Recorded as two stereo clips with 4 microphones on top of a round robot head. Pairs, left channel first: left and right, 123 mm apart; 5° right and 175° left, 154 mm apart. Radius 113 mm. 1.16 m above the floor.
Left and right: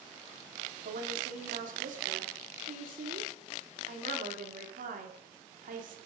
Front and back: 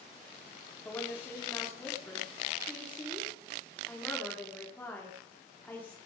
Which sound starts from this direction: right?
A woman speaking, at 0.8 s.